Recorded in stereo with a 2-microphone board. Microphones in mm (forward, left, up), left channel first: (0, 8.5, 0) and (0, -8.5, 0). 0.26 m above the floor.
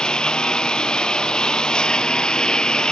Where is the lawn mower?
65° left (ahead or behind); by 2.9 s 60° left (ahead or behind).